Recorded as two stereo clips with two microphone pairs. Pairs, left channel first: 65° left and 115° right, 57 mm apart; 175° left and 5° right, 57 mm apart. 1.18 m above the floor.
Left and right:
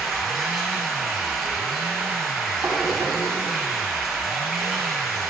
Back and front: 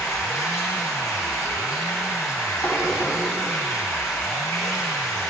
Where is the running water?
160° left, 4 m.